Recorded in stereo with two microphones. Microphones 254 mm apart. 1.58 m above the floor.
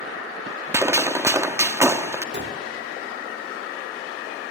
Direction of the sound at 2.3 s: 45° right (ahead or behind).